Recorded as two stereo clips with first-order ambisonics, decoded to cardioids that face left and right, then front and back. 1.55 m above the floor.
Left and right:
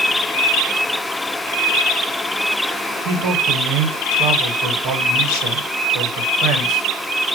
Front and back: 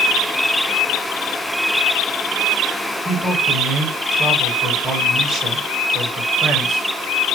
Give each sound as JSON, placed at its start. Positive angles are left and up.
{"t": 3.0, "sound": "a man speaking", "azimuth_deg": -110, "distance_m": 2.0}